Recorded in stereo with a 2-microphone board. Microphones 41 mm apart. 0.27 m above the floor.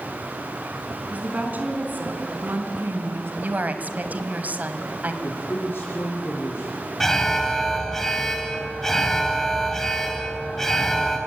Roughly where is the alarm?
Centre.